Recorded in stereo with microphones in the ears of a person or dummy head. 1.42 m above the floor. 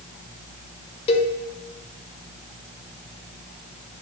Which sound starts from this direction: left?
A cowbell, at 1.1 s.